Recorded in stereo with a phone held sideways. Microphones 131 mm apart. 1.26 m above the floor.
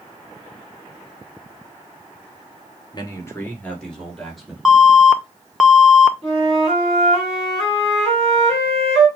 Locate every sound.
2.9 s a man speaking: 35° left (ahead or behind), 1.1 m; by 4.5 s centre (ahead or behind), 2.5 m
4.7 s an alarm: 5° right (ahead or behind), 0.5 m
6.2 s a flute: 5° left (ahead or behind), 3 m